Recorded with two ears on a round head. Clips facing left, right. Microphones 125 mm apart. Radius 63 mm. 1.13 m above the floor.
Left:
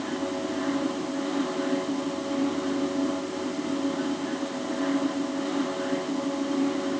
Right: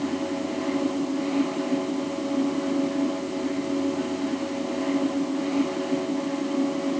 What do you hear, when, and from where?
Only background noise.